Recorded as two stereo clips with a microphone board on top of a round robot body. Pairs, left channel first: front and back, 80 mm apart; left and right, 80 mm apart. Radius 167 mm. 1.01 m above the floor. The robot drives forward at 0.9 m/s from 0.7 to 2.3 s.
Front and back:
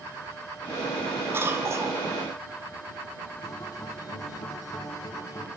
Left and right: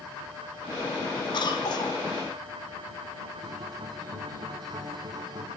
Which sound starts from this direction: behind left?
A cough, at 1.3 s.